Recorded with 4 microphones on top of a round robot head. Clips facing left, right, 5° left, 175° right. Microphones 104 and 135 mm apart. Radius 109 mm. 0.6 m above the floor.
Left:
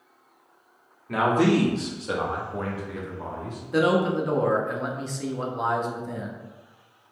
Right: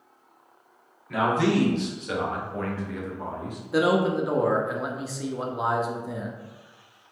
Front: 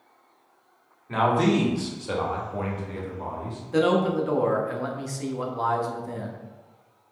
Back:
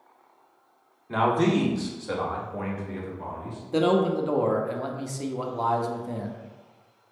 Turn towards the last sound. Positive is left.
turn(degrees=-165)